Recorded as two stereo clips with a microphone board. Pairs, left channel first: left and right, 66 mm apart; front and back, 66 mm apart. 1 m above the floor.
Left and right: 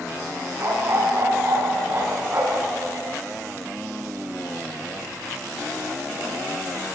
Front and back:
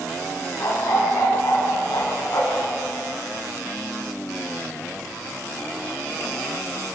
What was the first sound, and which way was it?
A dog barking, 45° right.